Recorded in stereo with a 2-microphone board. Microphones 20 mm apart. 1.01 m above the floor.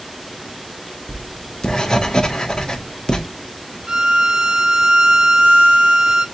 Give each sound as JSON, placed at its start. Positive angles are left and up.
{"t": 1.1, "sound": "writing", "side_deg": 35, "distance_m": 0.7}
{"t": 3.9, "sound": "a violin", "side_deg": -40, "distance_m": 0.7}